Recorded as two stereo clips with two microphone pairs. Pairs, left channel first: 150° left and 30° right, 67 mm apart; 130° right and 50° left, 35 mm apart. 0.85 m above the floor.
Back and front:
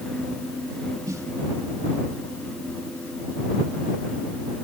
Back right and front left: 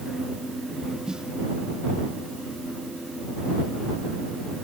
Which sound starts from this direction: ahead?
A snare drum, at 1.1 s.